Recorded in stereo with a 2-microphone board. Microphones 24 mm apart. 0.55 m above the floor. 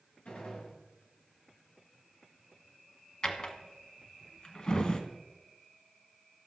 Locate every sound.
0.2 s a gunshot: 75° left (ahead or behind), 7 m
3.2 s a drawer: 35° left (ahead or behind), 1.3 m